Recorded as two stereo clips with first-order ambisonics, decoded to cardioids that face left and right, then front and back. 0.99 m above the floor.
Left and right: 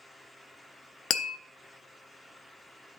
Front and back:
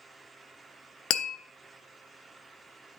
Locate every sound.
1.1 s tapping: 40° left, 0.6 m